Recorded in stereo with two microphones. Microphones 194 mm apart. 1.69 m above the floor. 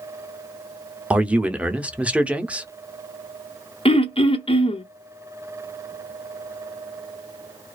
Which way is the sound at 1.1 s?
5° right (ahead or behind).